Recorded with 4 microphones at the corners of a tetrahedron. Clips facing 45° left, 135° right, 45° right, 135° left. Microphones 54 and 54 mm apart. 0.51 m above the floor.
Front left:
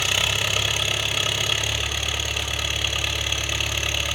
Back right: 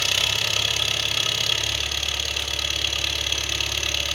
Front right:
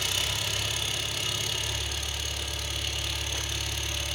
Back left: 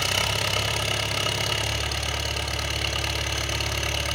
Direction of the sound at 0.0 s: 115° left.